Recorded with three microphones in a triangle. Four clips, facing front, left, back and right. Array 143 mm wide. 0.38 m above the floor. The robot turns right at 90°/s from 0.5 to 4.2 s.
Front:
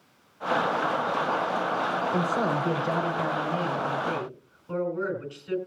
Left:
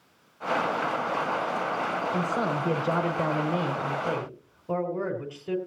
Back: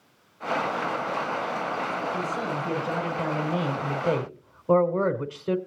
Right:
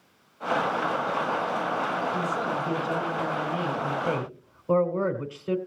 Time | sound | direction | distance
2.1 | a man speaking | 5° right | 2 m